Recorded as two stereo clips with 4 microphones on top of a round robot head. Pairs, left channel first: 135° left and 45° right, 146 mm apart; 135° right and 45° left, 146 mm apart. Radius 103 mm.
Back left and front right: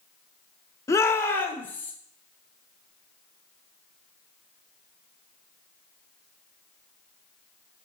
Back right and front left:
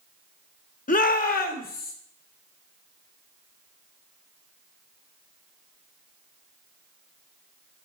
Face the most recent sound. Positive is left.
turn(degrees=-145)